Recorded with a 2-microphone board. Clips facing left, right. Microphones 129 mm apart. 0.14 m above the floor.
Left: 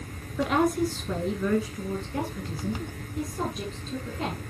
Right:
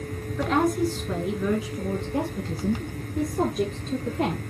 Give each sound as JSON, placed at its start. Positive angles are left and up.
{"t": 0.4, "sound": "a woman speaking", "side_deg": 5, "distance_m": 2.0}